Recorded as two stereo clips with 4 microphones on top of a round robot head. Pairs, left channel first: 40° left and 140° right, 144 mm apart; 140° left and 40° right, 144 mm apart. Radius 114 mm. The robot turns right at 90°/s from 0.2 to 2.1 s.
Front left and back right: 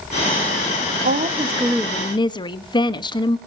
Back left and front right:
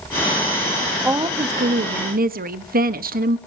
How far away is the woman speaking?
About 1.0 m.